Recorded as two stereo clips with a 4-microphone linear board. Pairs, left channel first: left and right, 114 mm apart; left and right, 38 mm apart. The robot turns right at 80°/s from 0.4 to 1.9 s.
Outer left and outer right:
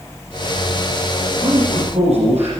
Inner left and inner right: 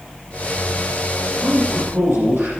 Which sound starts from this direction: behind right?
A man speaking, at 1.4 s.